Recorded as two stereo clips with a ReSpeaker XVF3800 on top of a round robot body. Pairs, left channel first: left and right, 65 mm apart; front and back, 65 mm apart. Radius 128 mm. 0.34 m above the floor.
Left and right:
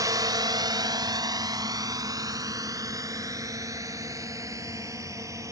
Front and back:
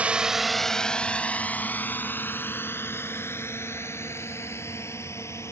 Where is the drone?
110° right; by 5.5 s 50° right.